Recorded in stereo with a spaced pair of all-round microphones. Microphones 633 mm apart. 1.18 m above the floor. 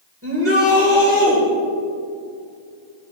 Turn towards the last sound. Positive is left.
turn(degrees=-20)  # may be behind; listen again after turning